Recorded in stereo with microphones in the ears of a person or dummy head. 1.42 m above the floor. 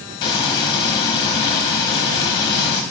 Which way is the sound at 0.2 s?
25° left (ahead or behind).